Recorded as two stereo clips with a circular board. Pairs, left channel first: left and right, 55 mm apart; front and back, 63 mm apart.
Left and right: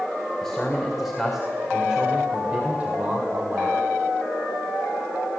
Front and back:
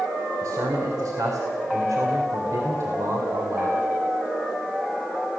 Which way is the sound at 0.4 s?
170° left.